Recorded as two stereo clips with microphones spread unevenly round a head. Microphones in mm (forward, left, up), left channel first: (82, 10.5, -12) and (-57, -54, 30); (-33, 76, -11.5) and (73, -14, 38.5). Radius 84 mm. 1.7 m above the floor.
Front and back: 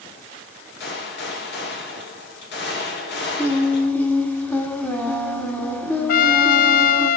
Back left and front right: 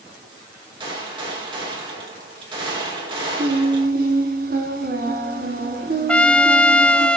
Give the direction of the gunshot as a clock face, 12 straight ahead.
11 o'clock.